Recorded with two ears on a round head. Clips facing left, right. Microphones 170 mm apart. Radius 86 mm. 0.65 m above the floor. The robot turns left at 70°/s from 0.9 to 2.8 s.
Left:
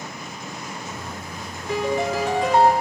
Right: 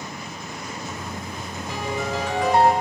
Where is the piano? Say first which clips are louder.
Left 5 dB; 85° left, 1.6 m; by 2.7 s 15° left, 1.6 m.